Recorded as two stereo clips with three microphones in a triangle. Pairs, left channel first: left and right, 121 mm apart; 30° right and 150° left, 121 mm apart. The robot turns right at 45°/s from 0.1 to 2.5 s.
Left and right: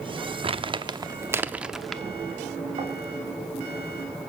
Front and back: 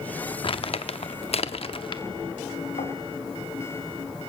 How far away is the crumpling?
About 0.7 m.